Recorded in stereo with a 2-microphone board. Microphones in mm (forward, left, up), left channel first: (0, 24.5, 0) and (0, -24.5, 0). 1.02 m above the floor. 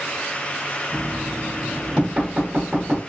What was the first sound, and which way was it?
Knocking, 25° right (ahead or behind).